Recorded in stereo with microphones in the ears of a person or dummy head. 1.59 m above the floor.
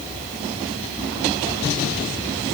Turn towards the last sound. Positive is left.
No sound to turn to.